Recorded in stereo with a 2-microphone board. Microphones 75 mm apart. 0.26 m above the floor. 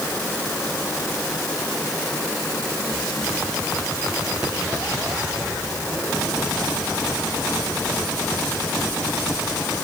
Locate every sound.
Only background noise.